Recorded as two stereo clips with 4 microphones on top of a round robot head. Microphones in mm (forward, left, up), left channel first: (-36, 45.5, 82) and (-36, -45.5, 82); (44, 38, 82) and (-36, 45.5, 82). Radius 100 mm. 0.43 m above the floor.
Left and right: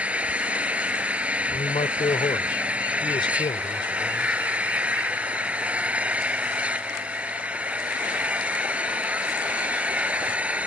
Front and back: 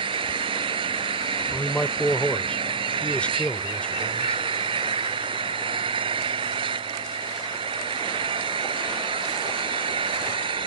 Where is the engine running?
165° right.